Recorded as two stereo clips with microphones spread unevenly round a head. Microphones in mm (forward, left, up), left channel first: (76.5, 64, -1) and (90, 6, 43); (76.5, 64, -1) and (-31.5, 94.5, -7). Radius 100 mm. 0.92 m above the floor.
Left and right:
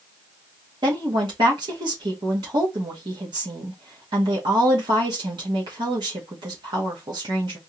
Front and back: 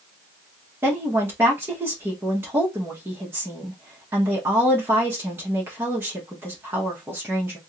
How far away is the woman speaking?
About 1.0 m.